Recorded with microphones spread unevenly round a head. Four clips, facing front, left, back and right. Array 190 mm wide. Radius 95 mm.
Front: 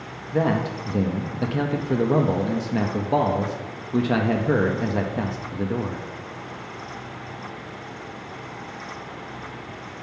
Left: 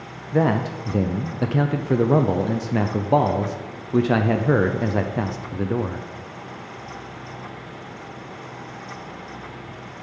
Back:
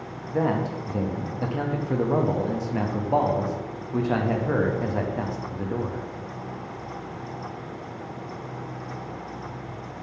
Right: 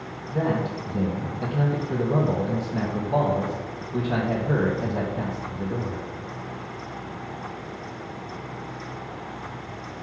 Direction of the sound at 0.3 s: 65° left.